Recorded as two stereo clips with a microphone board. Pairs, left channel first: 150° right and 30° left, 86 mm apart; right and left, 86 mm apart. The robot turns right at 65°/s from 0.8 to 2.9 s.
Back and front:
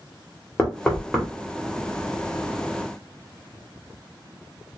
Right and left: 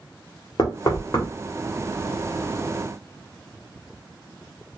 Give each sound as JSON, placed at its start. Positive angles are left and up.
{"t": 0.6, "sound": "knocking", "azimuth_deg": -80, "distance_m": 1.3}